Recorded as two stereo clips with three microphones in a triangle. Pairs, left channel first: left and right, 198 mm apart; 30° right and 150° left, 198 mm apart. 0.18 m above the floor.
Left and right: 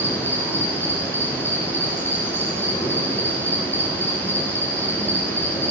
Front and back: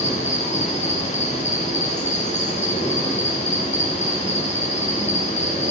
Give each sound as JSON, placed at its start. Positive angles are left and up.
{"t": 0.0, "sound": "an insect", "azimuth_deg": 10, "distance_m": 2.0}